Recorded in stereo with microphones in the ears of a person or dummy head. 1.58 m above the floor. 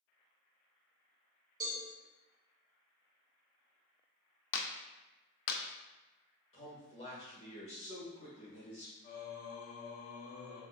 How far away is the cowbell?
About 1.6 m.